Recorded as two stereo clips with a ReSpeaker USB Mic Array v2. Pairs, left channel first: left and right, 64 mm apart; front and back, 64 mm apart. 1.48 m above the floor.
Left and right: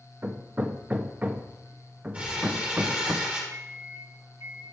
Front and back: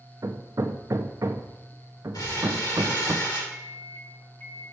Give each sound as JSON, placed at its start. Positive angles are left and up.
{"t": 0.2, "sound": "hammering", "azimuth_deg": -155, "distance_m": 0.6}
{"t": 2.1, "sound": "crumpling", "azimuth_deg": -20, "distance_m": 3.0}
{"t": 3.5, "sound": "a microwave", "azimuth_deg": -55, "distance_m": 1.2}